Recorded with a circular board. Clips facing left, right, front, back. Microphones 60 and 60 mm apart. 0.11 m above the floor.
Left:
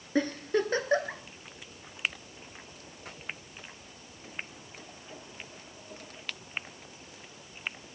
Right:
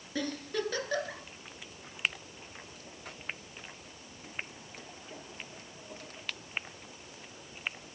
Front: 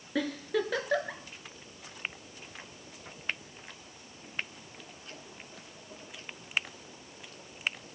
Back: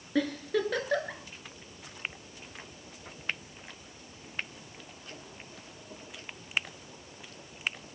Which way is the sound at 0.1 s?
85° left.